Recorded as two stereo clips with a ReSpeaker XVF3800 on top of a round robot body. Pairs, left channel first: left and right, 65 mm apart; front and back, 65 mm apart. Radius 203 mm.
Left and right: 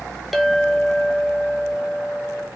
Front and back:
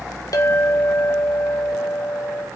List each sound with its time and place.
0.3 s a clink: straight ahead, 0.6 m